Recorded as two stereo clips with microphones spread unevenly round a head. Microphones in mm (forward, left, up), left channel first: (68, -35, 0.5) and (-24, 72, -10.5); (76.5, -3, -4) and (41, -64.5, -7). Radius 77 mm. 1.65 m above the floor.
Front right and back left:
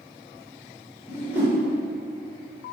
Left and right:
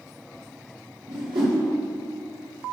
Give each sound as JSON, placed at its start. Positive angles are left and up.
{"t": 1.1, "sound": "a whoosh", "azimuth_deg": -150, "distance_m": 2.0}